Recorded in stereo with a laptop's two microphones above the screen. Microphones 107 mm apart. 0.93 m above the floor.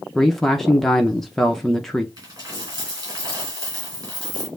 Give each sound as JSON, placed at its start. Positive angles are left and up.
{"t": 0.1, "sound": "a man speaking", "side_deg": 5, "distance_m": 0.7}
{"t": 2.2, "sound": "a dropped coin", "side_deg": -40, "distance_m": 2.0}